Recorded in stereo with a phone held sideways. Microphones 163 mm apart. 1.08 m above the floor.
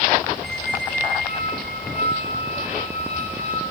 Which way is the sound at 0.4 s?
75° right (ahead or behind).